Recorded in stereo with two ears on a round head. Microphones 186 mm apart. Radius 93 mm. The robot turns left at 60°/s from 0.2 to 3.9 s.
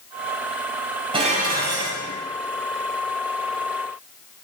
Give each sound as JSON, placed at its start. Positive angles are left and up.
{"t": 1.1, "sound": "dishes clattering", "azimuth_deg": -25, "distance_m": 5.5}